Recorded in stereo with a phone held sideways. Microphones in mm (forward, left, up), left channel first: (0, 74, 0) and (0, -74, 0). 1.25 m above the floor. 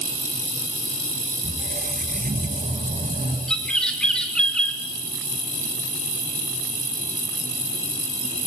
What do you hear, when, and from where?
1.4 s a squeak: 70° right (ahead or behind), 3.5 m
3.5 s a bird: 5° left (ahead or behind), 3.5 m